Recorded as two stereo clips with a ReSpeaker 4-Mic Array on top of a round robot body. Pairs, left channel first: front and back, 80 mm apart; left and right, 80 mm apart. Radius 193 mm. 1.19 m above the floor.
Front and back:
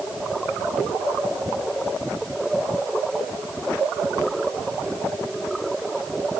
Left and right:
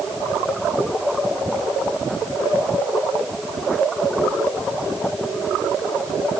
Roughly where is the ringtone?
No ringtone in this recording.